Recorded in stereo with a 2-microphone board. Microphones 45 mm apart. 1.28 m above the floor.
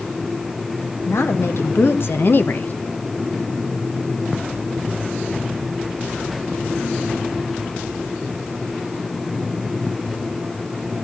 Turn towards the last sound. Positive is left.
turn(degrees=40)  # may be behind; listen again after turning